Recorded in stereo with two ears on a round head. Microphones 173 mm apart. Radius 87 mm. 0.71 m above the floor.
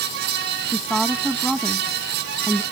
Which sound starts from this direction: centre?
A woman speaking, at 0.7 s.